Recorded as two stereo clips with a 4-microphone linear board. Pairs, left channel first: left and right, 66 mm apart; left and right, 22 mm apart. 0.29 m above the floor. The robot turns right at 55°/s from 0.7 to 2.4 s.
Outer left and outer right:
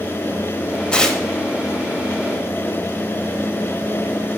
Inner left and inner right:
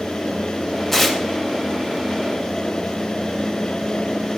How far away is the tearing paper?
About 0.7 m.